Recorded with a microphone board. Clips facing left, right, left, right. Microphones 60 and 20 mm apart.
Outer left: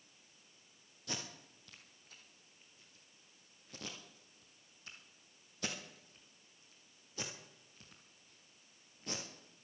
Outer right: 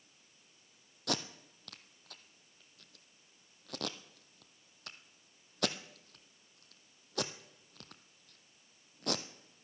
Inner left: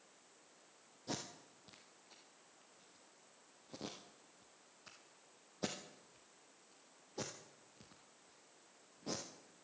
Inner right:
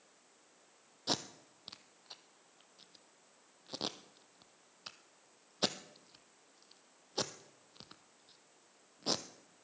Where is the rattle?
No rattle in this recording.